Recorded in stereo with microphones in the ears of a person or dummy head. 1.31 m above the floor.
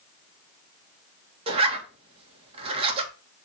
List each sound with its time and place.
1.5 s a zipper: 30° right (ahead or behind), 1.7 m